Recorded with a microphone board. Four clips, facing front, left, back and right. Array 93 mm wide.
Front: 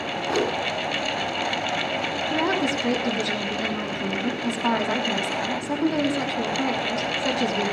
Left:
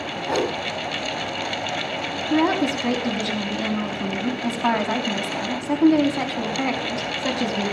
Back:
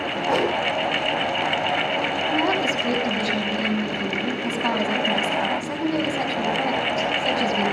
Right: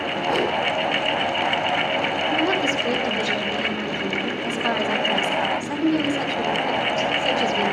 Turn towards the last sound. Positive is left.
turn(degrees=95)